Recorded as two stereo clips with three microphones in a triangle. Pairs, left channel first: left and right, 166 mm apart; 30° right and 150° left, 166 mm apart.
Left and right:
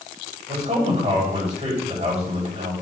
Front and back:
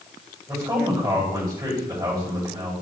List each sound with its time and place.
0.5 s a man speaking: 140° right, 7.5 m